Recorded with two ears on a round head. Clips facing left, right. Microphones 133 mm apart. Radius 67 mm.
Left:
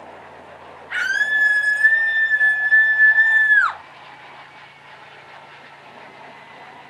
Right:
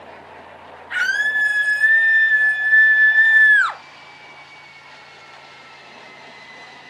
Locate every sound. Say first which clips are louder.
0.9 s a scream: right 1 dB; 40° right (ahead or behind), 3 m; by 3.8 s 35° right (ahead or behind), 0.7 m